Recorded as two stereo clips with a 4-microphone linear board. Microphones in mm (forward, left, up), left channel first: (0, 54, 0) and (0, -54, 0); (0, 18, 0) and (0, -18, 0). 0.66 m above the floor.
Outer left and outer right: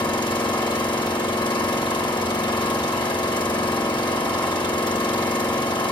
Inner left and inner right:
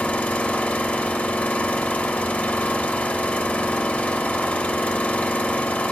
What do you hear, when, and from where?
0.0 s an engine running: 45° left (ahead or behind), 1.0 m